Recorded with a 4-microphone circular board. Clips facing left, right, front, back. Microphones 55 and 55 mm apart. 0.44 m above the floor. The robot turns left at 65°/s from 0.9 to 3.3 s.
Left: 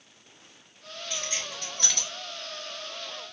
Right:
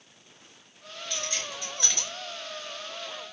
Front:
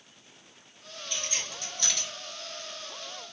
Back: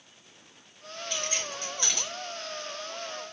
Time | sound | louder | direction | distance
1.1 | keys jangling | right 1 dB, back 3 dB | 155° left | 1.8 m